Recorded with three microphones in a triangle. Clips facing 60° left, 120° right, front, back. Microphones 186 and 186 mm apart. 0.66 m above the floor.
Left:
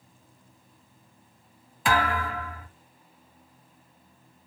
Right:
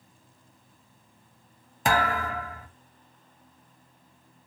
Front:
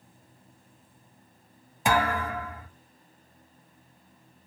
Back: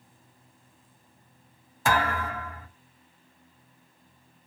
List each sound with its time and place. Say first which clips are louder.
1.9 s a thud: even, front 1 dB; 75° right, 0.8 m